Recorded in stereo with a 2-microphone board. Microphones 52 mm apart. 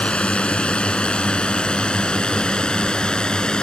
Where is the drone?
20° left (ahead or behind); by 3.6 s 15° left (ahead or behind).